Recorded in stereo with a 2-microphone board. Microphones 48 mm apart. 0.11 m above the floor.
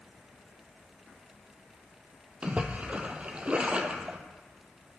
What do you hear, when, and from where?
2.4 s a splash: 30° right (ahead or behind), 0.9 m